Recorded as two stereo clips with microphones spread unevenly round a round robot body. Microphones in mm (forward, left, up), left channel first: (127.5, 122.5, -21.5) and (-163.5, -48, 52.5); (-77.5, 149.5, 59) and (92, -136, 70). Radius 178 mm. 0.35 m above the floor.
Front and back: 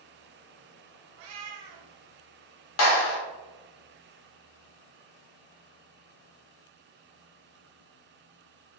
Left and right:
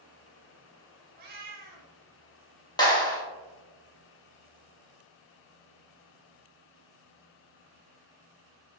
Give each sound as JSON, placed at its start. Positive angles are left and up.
{"t": 1.2, "sound": "a cat meowing", "azimuth_deg": -125, "distance_m": 0.9}
{"t": 2.8, "sound": "a clap", "azimuth_deg": 45, "distance_m": 1.5}